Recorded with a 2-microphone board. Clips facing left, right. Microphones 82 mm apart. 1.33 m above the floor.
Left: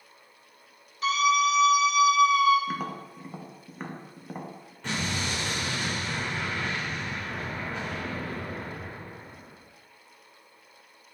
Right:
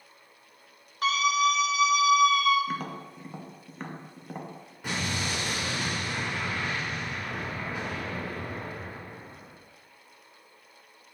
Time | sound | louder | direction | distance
1.0 | a scream | left 1 dB | 80° right | 3 m
2.7 | tapping | left 1 dB | 5° left (ahead or behind) | 0.7 m
4.8 | an explosion | left 1 dB | 10° right (ahead or behind) | 3 m